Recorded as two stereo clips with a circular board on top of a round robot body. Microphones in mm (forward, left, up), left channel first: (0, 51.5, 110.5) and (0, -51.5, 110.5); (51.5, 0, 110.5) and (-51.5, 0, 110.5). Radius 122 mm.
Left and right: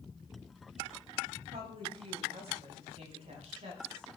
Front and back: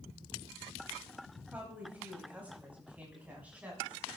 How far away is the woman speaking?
About 4.5 m.